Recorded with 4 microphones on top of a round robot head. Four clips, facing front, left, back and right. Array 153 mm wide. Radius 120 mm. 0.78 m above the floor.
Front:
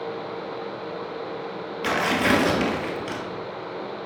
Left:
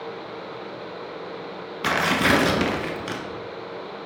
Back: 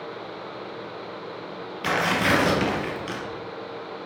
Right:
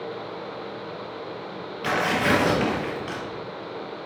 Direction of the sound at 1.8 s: 90° left.